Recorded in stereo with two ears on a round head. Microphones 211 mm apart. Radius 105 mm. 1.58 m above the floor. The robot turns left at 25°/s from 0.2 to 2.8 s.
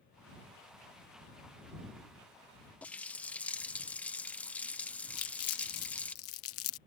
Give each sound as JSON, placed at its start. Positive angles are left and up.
{"t": 2.8, "sound": "a running tap", "side_deg": 5}
{"t": 5.2, "sound": "crumpling", "side_deg": 65}